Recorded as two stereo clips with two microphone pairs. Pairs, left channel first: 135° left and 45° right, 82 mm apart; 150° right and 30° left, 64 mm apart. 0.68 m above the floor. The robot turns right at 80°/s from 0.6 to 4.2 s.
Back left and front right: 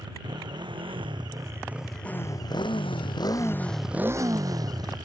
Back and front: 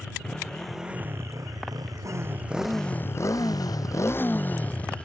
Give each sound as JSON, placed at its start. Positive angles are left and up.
{"t": 0.0, "sound": "a motorcycle", "azimuth_deg": -70}